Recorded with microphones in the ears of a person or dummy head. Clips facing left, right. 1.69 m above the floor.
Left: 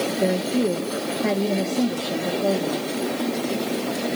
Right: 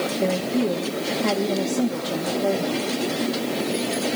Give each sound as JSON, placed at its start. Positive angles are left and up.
{"t": 0.2, "sound": "a woman speaking", "side_deg": 10, "distance_m": 2.0}